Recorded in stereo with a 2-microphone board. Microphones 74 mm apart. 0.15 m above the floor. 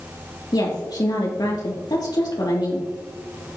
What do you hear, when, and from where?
0.5 s a woman speaking: 65° left (ahead or behind), 3 m